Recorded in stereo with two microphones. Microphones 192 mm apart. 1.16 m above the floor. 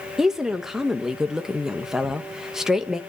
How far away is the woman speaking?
About 1.3 m.